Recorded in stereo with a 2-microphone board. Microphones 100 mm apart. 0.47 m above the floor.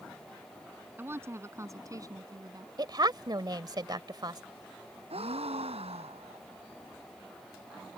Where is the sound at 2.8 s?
45° right (ahead or behind).